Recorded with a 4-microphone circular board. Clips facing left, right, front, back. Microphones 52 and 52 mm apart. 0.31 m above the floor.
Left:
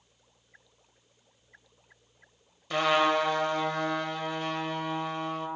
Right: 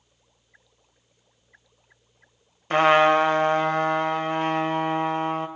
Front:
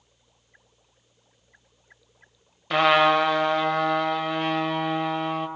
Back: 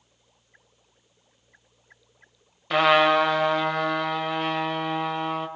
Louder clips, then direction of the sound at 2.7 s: Right 7 dB, even; 90° right.